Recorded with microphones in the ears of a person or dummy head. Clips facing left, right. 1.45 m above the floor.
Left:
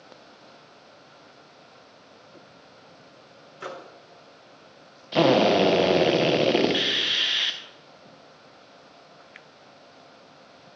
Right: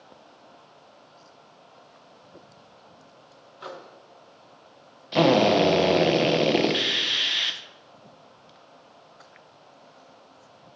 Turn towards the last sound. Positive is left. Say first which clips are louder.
# even
turn(degrees=-5)  # may be behind; listen again after turning